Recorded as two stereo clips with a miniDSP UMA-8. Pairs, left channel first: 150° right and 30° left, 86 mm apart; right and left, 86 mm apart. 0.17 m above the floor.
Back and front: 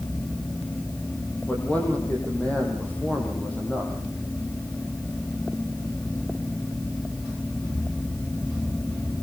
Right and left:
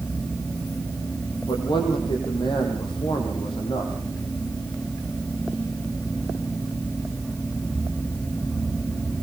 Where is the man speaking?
75° right, 8 m.